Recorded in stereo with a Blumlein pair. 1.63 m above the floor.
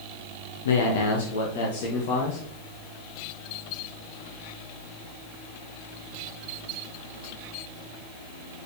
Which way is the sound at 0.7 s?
65° left.